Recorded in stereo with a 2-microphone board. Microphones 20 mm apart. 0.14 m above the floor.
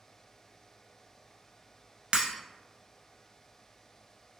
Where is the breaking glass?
50° right (ahead or behind), 0.6 m.